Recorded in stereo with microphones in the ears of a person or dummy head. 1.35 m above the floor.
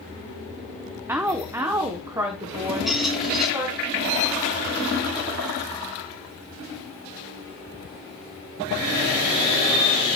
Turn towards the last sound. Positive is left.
turn(degrees=0)  # may be behind; listen again after turning